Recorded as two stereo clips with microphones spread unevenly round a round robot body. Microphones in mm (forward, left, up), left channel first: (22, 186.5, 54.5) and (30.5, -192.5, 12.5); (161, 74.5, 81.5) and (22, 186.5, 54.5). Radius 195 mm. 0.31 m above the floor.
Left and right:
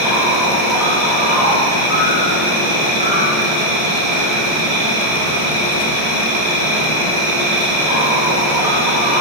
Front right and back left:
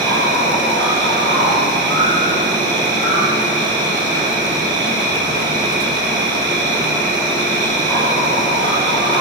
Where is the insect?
120° right, 8 m.